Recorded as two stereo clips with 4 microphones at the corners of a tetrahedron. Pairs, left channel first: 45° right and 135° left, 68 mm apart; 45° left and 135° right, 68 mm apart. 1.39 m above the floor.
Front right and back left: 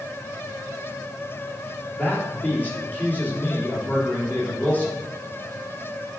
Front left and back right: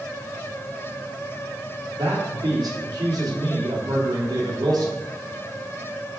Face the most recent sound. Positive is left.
turn(degrees=-110)